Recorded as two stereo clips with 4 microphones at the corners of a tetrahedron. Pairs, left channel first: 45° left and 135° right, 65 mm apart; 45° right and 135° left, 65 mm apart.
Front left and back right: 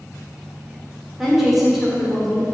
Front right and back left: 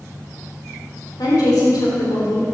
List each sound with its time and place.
1.2 s a woman speaking: 45° right, 4 m